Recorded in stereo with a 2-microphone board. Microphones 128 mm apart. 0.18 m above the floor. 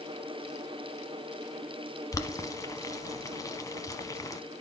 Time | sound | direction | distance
2.1 | boiling | 25° left (ahead or behind) | 0.9 m